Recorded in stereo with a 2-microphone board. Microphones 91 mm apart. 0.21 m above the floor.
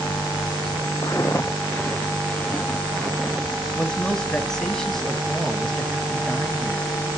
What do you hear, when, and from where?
1.0 s footsteps: 40° left (ahead or behind), 0.5 m; by 3.6 s 5° left (ahead or behind), 1.7 m
3.8 s a man speaking: 5° left (ahead or behind), 1.6 m